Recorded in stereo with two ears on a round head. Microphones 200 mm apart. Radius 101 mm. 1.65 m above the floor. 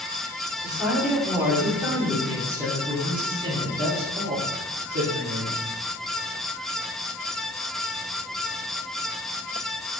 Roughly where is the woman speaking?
Centre.